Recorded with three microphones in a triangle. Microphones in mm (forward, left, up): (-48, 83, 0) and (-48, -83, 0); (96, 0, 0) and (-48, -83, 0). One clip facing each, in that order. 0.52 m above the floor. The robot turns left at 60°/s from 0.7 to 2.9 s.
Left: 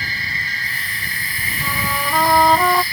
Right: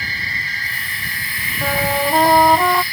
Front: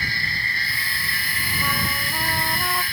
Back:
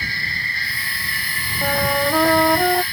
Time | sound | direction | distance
1.6 | a trumpet | 115° right | ?